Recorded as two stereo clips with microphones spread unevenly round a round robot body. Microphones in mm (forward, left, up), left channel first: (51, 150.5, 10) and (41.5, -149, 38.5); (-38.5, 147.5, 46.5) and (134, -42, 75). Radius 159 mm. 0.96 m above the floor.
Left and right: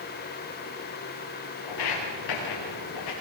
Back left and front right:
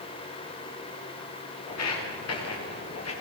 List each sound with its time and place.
1.7 s footsteps: 115° left, 9 m; by 3.1 s 100° left, 10 m